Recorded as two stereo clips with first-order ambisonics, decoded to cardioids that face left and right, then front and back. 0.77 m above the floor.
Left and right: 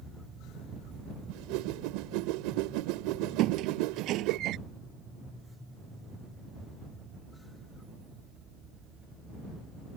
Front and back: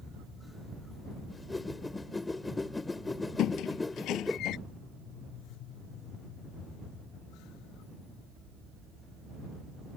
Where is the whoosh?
80° right.